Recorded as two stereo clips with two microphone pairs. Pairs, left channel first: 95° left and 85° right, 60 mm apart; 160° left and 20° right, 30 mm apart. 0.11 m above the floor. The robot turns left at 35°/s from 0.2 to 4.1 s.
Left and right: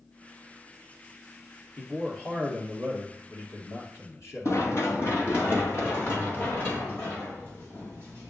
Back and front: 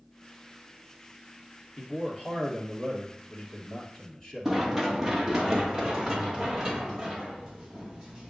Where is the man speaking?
175° left, 2 m; by 4.5 s 95° left, 2 m.